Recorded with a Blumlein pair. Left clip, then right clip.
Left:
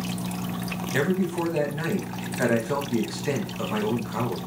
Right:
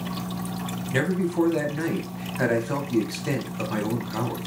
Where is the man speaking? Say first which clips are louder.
Right 1 dB; 5° right, 1.0 m.